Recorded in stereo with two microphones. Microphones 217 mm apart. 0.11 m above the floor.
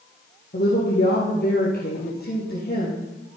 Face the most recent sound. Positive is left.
turn(degrees=50)  # may be behind; listen again after turning